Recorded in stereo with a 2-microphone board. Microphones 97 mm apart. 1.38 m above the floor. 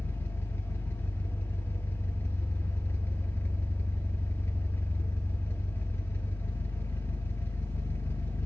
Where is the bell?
No bell in this recording.